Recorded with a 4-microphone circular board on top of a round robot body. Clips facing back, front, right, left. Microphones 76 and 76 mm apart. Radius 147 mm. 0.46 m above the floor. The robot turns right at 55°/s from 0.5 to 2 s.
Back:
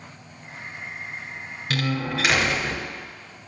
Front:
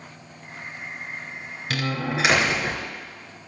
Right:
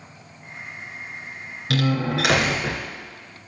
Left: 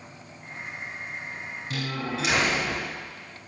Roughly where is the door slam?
Right.